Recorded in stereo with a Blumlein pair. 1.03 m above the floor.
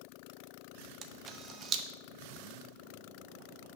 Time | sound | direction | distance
1.0 | a camera shutter | 25° right | 0.7 m